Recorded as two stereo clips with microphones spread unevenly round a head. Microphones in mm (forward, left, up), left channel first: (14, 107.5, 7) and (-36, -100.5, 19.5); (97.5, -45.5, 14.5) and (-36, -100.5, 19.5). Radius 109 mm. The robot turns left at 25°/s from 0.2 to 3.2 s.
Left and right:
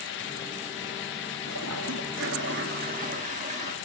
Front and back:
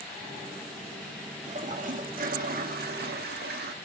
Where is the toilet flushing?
115° right, 2 m; by 3.7 s 160° right, 2 m.